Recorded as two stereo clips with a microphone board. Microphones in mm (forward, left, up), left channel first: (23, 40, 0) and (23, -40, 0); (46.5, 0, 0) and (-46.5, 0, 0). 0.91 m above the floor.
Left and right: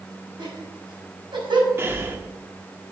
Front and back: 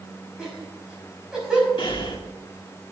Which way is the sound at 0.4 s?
95° right.